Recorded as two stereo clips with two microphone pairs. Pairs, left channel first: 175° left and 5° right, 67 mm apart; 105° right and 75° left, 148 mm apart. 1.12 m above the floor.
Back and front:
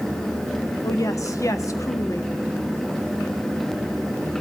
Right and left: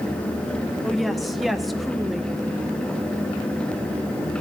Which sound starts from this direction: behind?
A woman speaking, at 0.8 s.